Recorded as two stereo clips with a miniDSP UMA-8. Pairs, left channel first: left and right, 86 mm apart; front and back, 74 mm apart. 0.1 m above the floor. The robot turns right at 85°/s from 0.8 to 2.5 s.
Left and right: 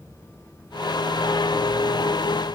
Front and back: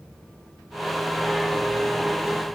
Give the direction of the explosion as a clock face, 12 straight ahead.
I don't hear an explosion.